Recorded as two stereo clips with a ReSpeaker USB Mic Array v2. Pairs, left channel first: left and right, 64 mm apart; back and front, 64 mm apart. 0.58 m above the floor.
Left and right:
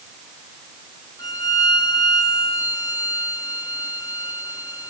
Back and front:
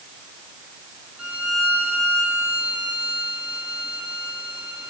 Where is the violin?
75° left, 3.5 m.